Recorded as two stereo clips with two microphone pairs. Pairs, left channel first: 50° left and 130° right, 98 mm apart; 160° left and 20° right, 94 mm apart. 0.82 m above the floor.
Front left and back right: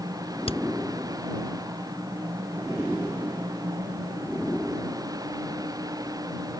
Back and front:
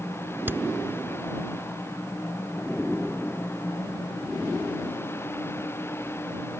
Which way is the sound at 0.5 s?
45° left.